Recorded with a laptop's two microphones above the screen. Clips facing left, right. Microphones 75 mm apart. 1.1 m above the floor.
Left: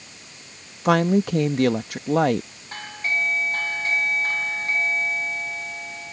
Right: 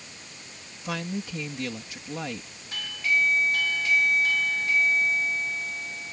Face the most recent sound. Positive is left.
turn(degrees=40)  # may be behind; listen again after turning